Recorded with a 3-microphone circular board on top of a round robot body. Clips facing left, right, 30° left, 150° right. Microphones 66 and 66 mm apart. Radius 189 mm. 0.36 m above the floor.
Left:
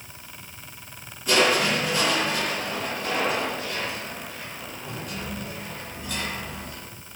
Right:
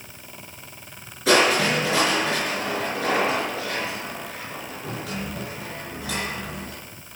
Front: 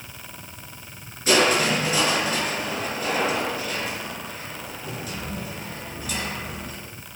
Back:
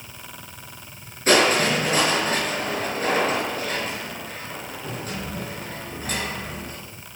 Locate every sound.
1.3 s crushing: 100° right, 5.5 m